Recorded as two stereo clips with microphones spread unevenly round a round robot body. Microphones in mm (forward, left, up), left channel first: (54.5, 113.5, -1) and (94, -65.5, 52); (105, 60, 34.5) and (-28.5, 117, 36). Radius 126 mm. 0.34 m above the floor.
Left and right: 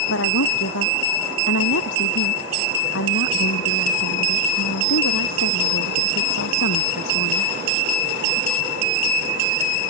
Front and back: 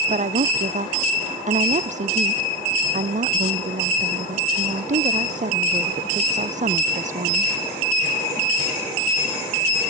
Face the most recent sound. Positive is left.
turn(degrees=125)